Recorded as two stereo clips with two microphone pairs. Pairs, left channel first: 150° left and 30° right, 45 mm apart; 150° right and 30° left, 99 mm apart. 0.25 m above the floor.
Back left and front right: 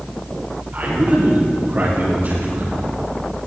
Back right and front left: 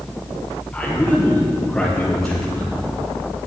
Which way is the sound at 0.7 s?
70° right.